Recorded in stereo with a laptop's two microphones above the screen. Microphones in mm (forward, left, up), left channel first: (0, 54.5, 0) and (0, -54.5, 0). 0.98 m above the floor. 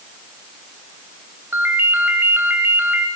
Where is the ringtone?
20° right (ahead or behind), 2 m.